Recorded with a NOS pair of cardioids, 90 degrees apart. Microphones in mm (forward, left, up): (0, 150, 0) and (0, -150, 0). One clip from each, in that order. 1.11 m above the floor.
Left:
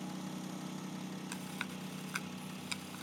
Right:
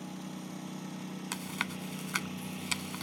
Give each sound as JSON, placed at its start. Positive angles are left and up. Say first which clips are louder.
{"t": 0.0, "sound": "a lawn mower", "louder": "right 1 dB", "azimuth_deg": -10}
{"t": 1.3, "sound": "chewing", "louder": "right 8 dB", "azimuth_deg": -60}